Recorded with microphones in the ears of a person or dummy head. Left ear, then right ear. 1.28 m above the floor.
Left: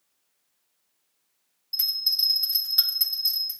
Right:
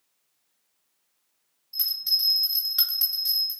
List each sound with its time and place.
1.7 s a bell: 25° left (ahead or behind), 1.3 m